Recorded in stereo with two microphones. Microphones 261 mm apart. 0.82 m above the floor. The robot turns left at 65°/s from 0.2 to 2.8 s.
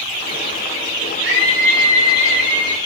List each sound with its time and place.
1.2 s a scream: 130° right, 3 m; by 2.8 s 130° left, 3 m